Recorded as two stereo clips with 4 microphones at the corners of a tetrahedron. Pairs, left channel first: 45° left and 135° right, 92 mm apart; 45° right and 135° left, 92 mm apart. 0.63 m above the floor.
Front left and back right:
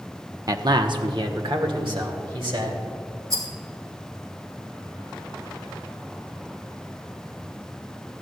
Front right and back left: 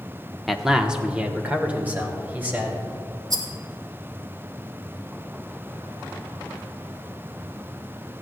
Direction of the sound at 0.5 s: 130° right.